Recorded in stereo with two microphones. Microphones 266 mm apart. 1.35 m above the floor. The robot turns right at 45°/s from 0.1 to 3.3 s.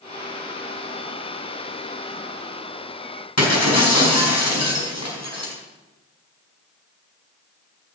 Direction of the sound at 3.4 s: 75° left (ahead or behind).